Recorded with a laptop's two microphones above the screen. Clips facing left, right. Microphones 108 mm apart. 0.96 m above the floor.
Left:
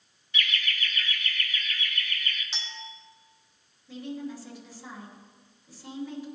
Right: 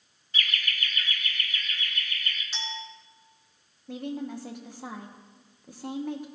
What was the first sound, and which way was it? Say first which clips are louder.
Laughter: left 1 dB; 40° right (ahead or behind).